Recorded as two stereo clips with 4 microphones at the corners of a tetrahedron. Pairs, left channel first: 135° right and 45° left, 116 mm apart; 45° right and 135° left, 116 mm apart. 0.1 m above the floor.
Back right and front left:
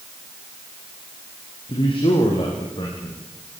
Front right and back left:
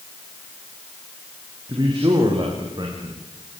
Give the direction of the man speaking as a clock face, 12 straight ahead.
6 o'clock.